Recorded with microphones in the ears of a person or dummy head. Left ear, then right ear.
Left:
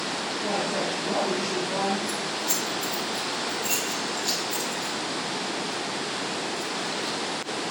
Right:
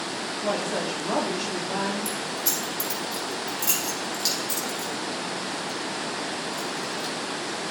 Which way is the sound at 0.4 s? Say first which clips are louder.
Right 1 dB; 65° right (ahead or behind).